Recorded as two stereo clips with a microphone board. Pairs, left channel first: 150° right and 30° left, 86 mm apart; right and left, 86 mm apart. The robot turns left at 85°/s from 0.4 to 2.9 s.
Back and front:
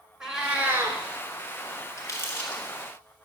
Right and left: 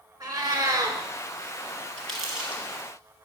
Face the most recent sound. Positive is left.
turn(degrees=120)